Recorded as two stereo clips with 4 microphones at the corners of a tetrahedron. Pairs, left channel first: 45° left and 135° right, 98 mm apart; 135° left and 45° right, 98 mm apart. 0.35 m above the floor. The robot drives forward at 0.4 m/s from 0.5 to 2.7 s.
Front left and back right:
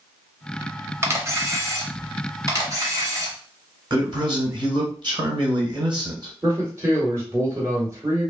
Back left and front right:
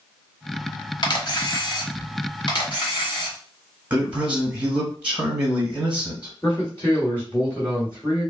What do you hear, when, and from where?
1.0 s a camera shutter: 165° left, 0.8 m; by 3.4 s 175° left, 1.4 m
3.9 s a man speaking: 115° right, 1.6 m
6.4 s a man speaking: 175° right, 1.8 m